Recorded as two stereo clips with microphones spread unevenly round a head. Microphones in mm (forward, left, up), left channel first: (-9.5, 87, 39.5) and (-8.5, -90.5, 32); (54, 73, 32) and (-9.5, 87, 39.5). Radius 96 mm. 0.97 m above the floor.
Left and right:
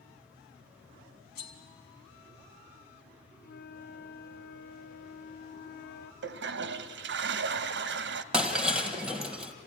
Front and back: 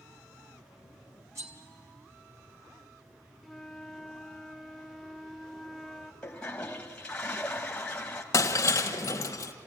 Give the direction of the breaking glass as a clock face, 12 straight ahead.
12 o'clock.